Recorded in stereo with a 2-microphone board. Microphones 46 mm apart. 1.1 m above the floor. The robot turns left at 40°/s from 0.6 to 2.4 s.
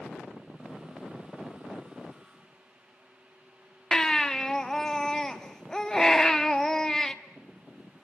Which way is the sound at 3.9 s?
10° left (ahead or behind).